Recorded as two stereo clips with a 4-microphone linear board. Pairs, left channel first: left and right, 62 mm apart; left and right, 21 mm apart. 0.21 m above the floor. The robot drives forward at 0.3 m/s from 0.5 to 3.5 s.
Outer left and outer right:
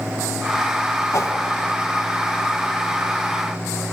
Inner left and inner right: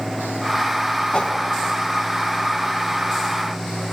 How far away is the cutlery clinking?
No cutlery clinking in this recording.